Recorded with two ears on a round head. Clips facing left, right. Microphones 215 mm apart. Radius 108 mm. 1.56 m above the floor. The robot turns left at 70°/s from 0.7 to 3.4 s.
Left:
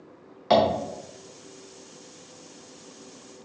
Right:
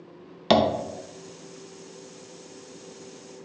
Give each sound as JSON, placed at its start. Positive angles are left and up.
{"t": 0.5, "sound": "tapping", "side_deg": -45, "distance_m": 0.6}